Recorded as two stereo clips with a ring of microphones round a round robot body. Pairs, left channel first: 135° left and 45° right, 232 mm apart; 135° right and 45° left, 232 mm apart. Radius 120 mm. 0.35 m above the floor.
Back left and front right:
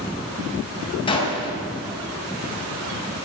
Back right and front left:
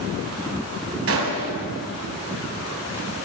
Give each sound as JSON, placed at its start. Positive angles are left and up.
{"t": 1.1, "sound": "a gunshot", "azimuth_deg": 65, "distance_m": 3.0}